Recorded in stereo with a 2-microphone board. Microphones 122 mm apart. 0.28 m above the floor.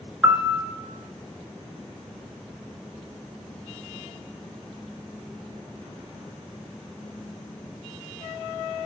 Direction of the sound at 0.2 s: 20° right (ahead or behind).